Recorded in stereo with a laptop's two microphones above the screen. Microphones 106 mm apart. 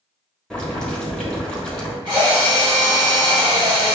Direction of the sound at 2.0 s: 45° right (ahead or behind).